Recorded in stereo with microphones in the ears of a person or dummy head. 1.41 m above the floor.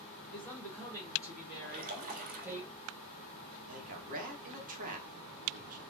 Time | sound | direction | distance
0.3 | a woman speaking | centre (ahead or behind) | 2.5 m
1.6 | a splash | 45° right (ahead or behind) | 2.0 m
3.6 | a man speaking | 45° right (ahead or behind) | 1.6 m